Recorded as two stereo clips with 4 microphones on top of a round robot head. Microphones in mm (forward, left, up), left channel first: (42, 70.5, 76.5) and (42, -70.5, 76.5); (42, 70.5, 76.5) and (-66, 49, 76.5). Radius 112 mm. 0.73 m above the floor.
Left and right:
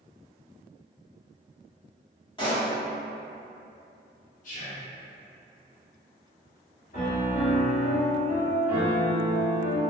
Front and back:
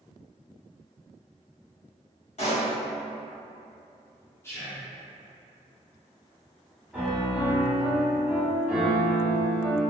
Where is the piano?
110° left, 1.9 m.